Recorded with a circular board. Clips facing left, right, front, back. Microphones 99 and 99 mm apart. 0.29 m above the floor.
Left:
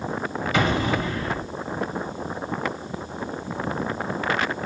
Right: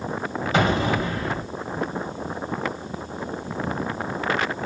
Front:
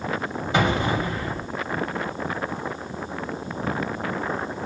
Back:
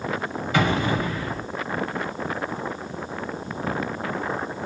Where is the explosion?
55° right, 0.9 m.